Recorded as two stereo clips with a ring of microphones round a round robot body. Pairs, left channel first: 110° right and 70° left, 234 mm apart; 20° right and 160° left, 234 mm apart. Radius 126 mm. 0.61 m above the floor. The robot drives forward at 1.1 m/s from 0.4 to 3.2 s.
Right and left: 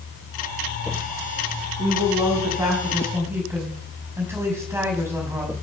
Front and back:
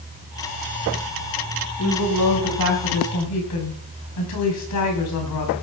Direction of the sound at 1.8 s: 10° right.